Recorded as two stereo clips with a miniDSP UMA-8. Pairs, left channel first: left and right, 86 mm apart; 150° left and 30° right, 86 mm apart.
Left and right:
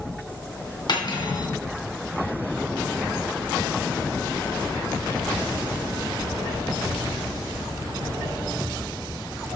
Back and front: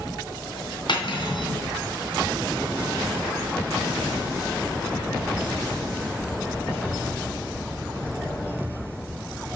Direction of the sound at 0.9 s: 120° left.